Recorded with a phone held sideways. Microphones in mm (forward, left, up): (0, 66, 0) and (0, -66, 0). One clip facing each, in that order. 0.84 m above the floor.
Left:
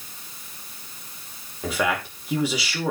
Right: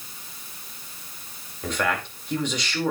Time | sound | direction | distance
1.6 | a man speaking | 10° left (ahead or behind) | 2.5 m